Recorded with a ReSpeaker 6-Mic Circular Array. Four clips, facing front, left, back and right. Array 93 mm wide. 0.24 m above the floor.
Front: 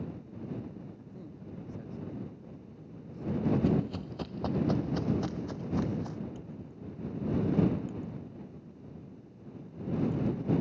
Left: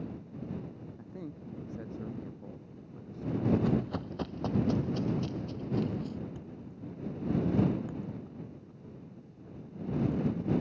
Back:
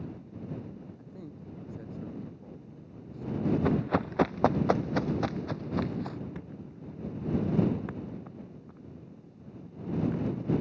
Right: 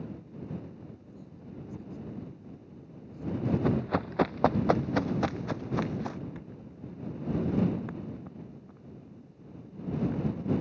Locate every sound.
1.0 s a man speaking: 105° left
3.6 s running footsteps: 155° right; by 6.2 s 105° right
6.3 s a thud: 150° right